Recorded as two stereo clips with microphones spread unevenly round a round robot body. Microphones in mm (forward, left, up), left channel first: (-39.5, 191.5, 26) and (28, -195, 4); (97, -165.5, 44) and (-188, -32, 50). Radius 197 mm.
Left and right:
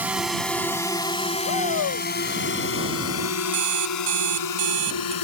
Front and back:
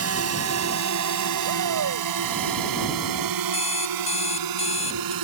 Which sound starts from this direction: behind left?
A shout, at 1.4 s.